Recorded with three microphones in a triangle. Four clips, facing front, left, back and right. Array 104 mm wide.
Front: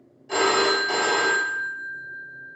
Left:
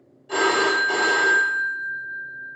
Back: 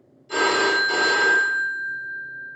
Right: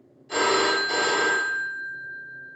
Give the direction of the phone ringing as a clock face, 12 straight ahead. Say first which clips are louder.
Left 2 dB, even; 11 o'clock.